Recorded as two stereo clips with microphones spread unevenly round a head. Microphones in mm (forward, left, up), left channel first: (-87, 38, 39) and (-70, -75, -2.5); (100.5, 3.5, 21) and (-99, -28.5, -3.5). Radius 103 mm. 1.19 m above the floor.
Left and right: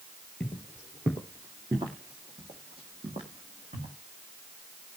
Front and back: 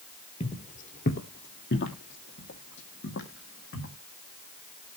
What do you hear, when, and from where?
0.4 s footsteps: 50° left, 1.5 m; by 4.0 s 15° right, 4 m